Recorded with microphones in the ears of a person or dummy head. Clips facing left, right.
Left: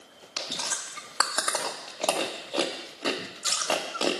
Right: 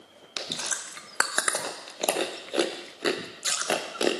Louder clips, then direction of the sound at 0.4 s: Even; 20° right (ahead or behind).